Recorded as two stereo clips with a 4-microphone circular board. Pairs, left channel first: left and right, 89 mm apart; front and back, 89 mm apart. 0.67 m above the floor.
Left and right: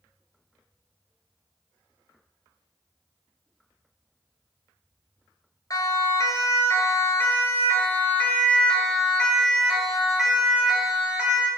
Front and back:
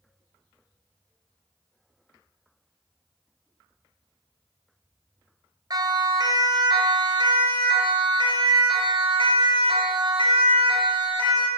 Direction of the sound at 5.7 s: 135° left.